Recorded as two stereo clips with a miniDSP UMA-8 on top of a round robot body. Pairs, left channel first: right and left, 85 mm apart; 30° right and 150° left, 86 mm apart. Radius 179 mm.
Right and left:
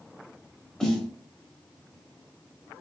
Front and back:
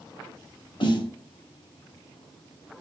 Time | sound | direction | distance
0.8 | a snare drum | 10° right | 1.4 m